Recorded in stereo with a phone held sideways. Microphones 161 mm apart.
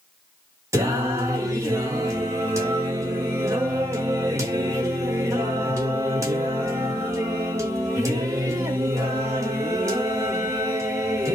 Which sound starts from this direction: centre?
Singing, at 0.7 s.